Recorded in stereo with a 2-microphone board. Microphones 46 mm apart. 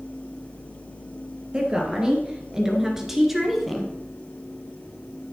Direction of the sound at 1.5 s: 20° right (ahead or behind).